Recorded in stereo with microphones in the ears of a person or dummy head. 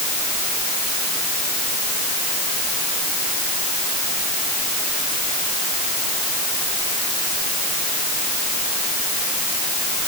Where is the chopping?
I don't hear chopping.